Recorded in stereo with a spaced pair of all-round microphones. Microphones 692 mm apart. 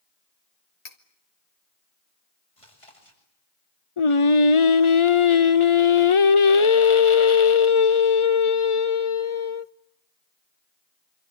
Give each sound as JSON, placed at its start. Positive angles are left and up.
{"t": 0.8, "sound": "cutlery clinking", "side_deg": 60, "distance_m": 2.0}
{"t": 2.6, "sound": "chewing", "side_deg": 45, "distance_m": 8.0}
{"t": 4.0, "sound": "singing", "side_deg": 45, "distance_m": 0.8}